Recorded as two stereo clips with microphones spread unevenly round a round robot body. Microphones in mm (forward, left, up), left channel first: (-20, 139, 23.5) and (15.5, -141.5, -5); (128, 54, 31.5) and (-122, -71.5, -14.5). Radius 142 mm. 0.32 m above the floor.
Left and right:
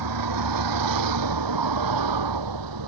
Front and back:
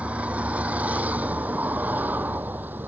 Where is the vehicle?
70° right.